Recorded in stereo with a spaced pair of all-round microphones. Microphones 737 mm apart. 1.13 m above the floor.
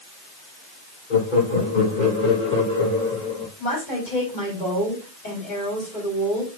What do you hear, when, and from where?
1.1 s laughter: 75° left (ahead or behind), 2.0 m; by 3.5 s 70° left (ahead or behind), 3.5 m
3.6 s a woman speaking: 70° left (ahead or behind), 4.5 m